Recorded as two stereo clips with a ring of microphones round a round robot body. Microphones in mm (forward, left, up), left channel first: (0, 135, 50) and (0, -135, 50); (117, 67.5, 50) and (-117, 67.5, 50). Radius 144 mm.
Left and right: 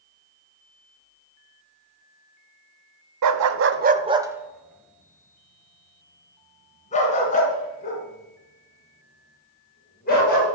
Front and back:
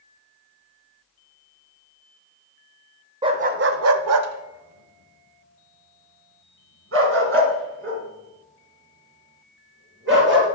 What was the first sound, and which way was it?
A dog barking, 105° right.